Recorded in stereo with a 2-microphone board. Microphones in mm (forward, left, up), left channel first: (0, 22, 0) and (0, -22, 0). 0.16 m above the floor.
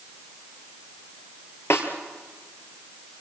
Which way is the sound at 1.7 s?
70° left (ahead or behind).